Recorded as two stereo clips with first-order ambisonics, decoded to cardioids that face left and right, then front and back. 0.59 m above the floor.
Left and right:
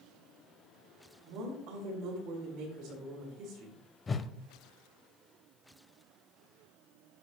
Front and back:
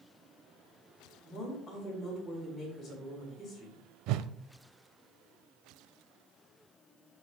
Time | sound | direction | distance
1.2 | a woman speaking | 65° right | 5.5 m
4.1 | a whoosh | 160° left | 0.5 m